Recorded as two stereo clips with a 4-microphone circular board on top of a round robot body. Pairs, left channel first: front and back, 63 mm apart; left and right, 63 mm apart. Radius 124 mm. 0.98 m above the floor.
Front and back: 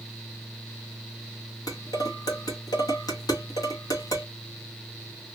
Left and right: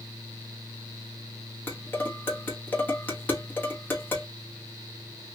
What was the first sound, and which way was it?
Dishes clattering, 25° left.